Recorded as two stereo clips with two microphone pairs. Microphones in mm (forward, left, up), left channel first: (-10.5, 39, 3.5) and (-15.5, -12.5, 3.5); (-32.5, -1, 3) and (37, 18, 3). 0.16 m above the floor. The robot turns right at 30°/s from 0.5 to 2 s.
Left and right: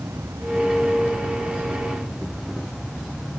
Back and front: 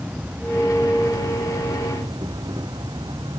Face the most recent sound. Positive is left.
turn(degrees=-10)